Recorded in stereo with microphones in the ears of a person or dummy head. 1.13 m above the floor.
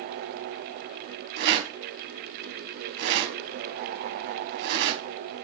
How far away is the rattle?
About 4 m.